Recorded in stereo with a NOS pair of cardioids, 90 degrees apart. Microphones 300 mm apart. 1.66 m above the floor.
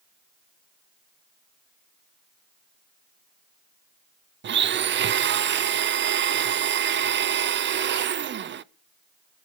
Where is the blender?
35° right, 0.6 m.